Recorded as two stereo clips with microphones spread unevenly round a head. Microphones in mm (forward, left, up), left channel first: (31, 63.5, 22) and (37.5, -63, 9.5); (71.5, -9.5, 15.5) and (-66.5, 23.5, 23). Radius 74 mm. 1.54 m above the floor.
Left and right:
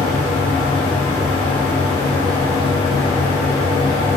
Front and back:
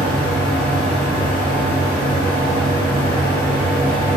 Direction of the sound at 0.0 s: 60° left.